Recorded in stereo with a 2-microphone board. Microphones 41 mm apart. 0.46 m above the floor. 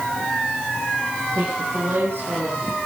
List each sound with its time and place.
1.3 s a woman speaking: 65° right (ahead or behind), 7.5 m; by 2.8 s 70° right (ahead or behind), 7 m